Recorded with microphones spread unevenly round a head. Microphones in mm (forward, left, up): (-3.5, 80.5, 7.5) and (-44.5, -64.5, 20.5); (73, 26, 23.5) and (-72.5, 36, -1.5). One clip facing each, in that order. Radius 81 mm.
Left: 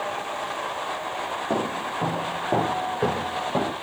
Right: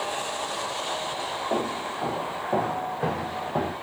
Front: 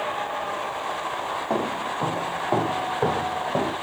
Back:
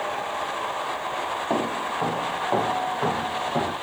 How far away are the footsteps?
About 3 m.